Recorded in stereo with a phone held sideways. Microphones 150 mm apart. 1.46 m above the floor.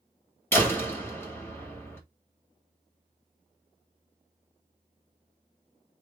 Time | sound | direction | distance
0.5 | a door slam | 15° left (ahead or behind) | 2.0 m